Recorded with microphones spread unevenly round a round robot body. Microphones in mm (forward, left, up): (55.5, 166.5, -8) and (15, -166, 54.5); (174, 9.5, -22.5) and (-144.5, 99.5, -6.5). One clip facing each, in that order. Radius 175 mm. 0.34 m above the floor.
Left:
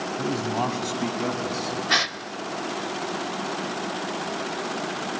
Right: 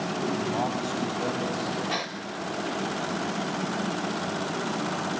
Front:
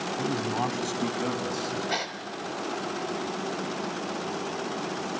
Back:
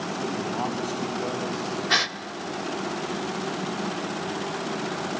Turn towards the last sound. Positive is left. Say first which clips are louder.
# left 2 dB, back 2 dB
turn(degrees=115)